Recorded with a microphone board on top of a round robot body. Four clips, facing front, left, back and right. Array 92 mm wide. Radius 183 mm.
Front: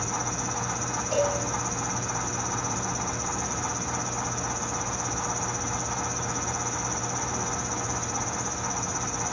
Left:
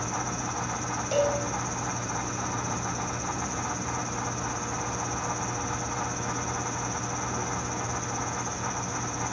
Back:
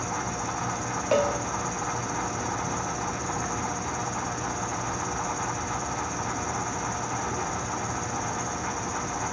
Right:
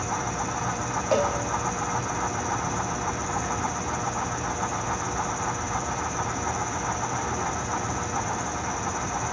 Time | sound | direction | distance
0.0 | an insect | 130° right | 5 m
1.1 | a cowbell | 145° right | 1.7 m